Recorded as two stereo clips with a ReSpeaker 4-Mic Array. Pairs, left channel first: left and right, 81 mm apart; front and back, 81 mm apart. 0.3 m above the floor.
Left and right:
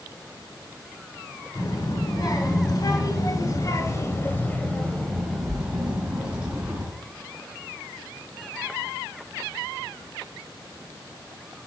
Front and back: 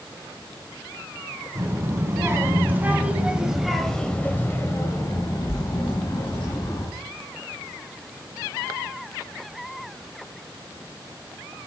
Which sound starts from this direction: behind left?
A child speaking, at 1.6 s.